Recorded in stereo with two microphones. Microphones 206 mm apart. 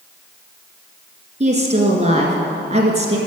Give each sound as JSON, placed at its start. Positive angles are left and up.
{"t": 1.4, "sound": "a woman speaking", "side_deg": -35, "distance_m": 1.7}